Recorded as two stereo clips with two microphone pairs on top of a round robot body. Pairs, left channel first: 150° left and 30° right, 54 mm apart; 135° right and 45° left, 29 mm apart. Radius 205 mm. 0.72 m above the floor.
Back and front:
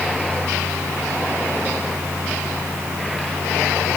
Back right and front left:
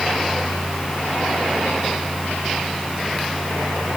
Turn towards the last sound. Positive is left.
No sound to turn to.